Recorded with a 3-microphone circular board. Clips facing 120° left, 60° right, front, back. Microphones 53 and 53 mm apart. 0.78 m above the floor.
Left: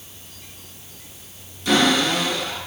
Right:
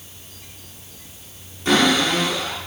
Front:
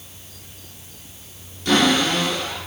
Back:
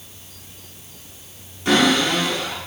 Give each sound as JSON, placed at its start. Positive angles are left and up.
{"t": 1.6, "sound": "a cupboard door", "azimuth_deg": -110, "distance_m": 5.0}